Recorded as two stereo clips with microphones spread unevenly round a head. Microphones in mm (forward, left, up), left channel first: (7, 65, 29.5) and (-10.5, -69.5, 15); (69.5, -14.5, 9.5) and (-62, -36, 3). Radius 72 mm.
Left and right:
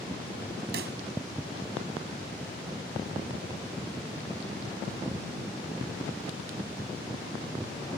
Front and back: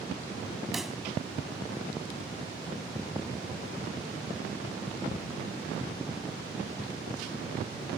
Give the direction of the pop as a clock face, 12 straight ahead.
3 o'clock.